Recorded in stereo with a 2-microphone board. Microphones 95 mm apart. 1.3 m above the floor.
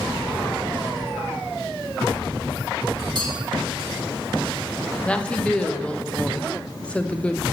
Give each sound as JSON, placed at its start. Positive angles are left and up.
{"t": 3.1, "sound": "a clink", "side_deg": -50, "distance_m": 4.5}
{"t": 5.0, "sound": "a woman speaking", "side_deg": 10, "distance_m": 0.9}